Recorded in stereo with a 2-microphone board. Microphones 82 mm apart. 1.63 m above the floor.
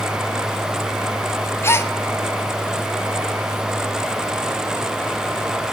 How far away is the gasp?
About 0.6 m.